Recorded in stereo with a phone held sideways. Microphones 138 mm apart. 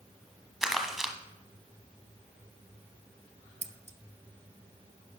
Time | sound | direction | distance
0.6 | crumpling | 5° right (ahead or behind) | 0.9 m
3.6 | scissors | 55° right (ahead or behind) | 0.6 m